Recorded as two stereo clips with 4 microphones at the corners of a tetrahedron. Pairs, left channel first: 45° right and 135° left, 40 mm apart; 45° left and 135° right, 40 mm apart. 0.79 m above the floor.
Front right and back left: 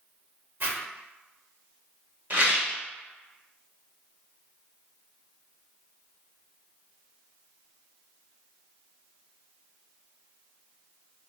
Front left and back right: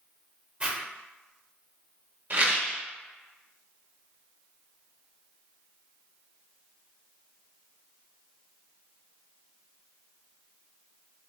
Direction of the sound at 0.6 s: 160° left.